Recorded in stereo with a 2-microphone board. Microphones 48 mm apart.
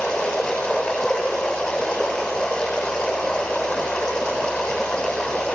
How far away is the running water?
About 8.5 m.